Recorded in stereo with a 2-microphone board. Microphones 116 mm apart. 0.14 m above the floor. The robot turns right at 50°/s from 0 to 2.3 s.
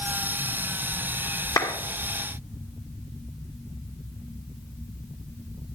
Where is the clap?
30° left (ahead or behind), 1.8 m; by 1.7 s 35° left (ahead or behind), 1.8 m.